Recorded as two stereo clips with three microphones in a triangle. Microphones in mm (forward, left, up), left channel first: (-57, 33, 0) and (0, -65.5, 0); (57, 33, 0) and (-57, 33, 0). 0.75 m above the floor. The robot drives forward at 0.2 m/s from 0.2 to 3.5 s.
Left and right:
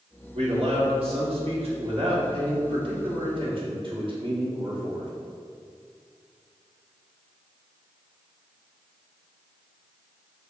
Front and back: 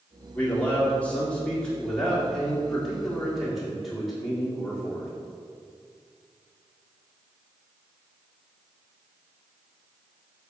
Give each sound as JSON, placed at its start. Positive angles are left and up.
{"t": 0.3, "sound": "a man speaking", "azimuth_deg": -75, "distance_m": 2.0}